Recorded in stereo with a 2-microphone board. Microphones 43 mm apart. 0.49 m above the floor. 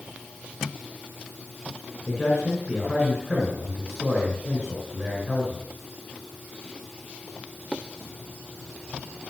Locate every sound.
2.1 s a man speaking: 15° right (ahead or behind), 6.5 m